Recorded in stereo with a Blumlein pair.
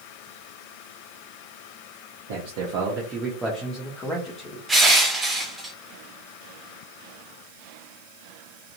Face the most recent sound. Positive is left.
turn(degrees=-15)